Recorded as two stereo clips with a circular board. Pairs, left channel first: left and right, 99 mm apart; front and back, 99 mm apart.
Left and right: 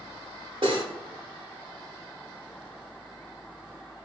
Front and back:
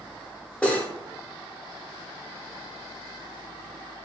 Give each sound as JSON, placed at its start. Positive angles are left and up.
{"t": 0.6, "sound": "cutlery clinking", "azimuth_deg": -75, "distance_m": 1.6}